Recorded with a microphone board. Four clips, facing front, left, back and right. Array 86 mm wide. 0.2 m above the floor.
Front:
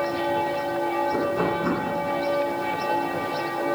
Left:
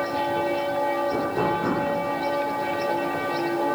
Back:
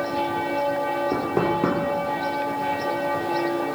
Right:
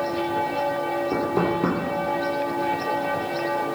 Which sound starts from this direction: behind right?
Knocking, at 1.1 s.